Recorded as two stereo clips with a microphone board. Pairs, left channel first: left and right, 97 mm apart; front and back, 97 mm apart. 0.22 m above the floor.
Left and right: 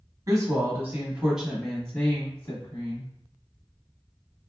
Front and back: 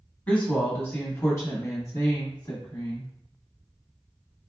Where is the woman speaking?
70° right, 1.2 m; by 3.1 s 45° left, 1.4 m.